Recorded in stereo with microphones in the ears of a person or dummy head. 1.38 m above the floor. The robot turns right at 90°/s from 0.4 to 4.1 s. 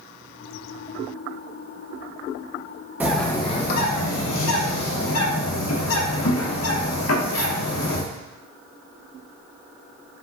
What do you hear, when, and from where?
3.0 s a bird: 10° right, 0.9 m; by 8.0 s 90° left, 0.9 m